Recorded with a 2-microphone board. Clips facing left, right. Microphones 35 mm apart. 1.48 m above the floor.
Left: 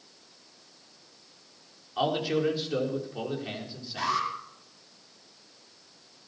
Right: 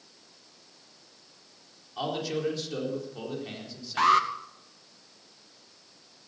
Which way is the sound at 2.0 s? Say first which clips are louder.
Left 4 dB; 20° left (ahead or behind).